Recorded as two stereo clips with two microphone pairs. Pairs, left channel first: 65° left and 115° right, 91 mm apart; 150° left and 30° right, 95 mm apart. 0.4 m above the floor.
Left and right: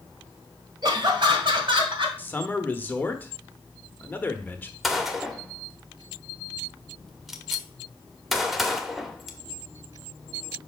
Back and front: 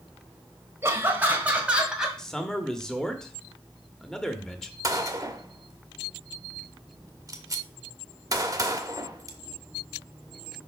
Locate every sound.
0.8 s laughter: 90° right, 1.5 m; by 2.1 s 110° right, 2 m
2.2 s a man speaking: 75° left, 0.8 m
4.8 s a gunshot: 25° right, 0.8 m